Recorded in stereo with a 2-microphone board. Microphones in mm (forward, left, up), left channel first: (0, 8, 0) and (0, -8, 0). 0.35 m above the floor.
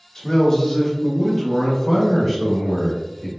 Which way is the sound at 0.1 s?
35° left (ahead or behind).